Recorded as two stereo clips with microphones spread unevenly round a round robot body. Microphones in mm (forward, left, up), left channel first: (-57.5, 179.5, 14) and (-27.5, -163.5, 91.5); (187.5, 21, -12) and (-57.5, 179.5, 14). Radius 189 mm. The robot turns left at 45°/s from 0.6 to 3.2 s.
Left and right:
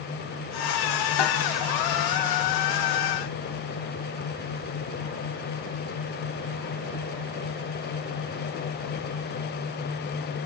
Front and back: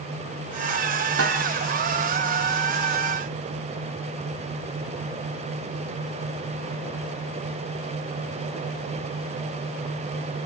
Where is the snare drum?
100° left, 2.5 m; by 1.4 s 90° left, 2.5 m.